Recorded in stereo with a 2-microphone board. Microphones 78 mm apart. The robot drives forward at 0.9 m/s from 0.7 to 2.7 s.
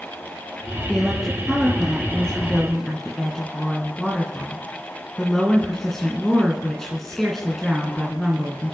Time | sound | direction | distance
0.9 | a woman speaking | 5° left (ahead or behind) | 3.5 m